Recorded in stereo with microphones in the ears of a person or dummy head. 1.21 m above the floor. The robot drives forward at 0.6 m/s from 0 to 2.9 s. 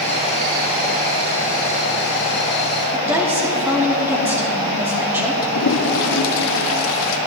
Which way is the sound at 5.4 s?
70° left (ahead or behind).